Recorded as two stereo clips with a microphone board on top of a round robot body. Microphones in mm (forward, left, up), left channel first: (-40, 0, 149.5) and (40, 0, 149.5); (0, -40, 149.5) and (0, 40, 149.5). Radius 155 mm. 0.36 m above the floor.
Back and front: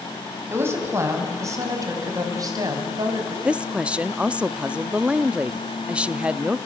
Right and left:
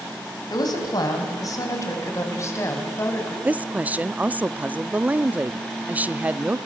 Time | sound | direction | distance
0.5 | a woman speaking | 55° right | 4.5 m
3.5 | a woman speaking | 55° left | 0.8 m